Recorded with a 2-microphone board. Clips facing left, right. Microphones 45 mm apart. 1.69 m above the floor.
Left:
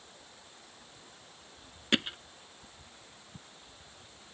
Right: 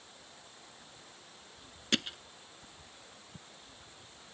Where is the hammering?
20° left (ahead or behind).